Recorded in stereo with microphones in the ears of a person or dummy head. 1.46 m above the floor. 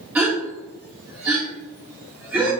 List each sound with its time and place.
0.1 s a gasp: 5° right (ahead or behind), 1.1 m